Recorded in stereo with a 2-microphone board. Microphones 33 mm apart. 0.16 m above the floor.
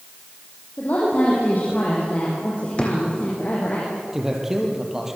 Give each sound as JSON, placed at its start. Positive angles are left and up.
{"t": 0.8, "sound": "a woman speaking", "side_deg": 55, "distance_m": 7.0}
{"t": 2.8, "sound": "a drawer", "side_deg": 35, "distance_m": 4.5}
{"t": 4.1, "sound": "a man speaking", "side_deg": -10, "distance_m": 4.5}